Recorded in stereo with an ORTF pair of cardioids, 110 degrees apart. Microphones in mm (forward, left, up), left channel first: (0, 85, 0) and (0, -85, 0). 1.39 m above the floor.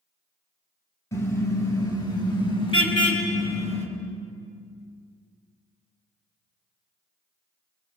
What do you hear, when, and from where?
1.1 s a car horn: 15° left, 6 m; by 3.9 s 40° left, 5.5 m